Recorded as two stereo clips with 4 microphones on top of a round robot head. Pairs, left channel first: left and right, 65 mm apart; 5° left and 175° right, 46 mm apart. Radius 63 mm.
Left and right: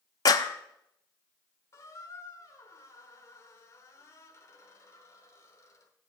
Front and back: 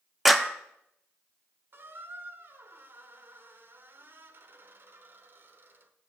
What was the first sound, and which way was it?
A clap, 95° left.